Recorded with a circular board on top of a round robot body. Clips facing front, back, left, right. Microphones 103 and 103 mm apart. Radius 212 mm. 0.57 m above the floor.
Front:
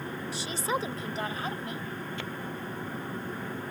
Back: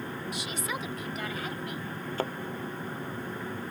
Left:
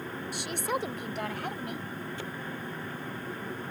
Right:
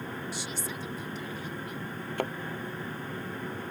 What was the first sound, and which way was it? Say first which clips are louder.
A woman speaking: front 7 dB, left 5 dB; 60° left.